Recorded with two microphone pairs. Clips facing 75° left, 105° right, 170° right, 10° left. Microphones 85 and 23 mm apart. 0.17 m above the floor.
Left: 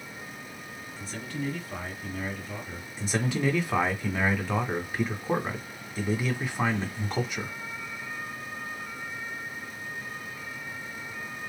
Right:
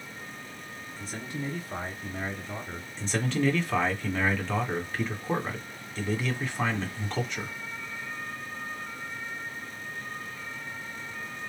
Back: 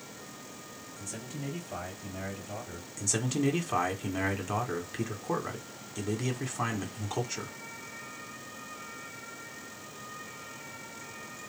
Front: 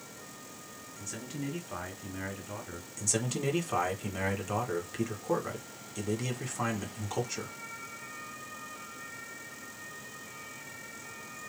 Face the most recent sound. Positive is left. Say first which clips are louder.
# even, back 2 dB
turn(degrees=130)